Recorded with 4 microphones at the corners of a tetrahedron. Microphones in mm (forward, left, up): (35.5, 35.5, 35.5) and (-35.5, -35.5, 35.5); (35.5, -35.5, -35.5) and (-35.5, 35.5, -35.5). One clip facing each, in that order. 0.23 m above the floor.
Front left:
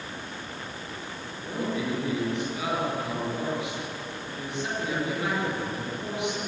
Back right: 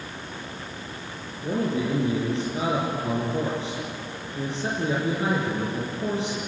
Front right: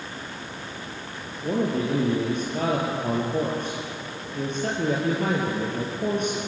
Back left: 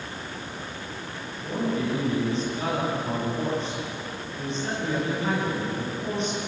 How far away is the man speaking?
About 5 m.